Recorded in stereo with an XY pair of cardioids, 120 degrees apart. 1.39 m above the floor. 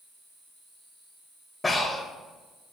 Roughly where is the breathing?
Ahead.